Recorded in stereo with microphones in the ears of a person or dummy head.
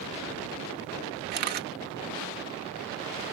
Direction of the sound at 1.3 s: 50° right (ahead or behind).